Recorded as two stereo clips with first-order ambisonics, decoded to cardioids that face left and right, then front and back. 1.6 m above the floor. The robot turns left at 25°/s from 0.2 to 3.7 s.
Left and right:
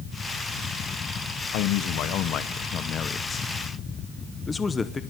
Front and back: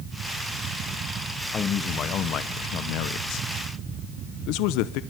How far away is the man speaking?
About 0.8 m.